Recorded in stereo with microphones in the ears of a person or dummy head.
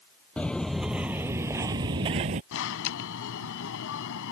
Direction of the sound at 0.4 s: 5° left (ahead or behind).